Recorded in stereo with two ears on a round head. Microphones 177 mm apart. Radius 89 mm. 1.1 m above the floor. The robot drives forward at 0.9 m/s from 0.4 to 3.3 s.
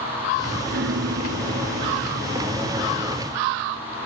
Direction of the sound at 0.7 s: 65° right (ahead or behind).